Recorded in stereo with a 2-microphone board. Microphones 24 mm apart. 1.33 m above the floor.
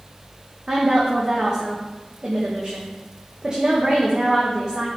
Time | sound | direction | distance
0.7 | a woman speaking | 35° right (ahead or behind) | 1.3 m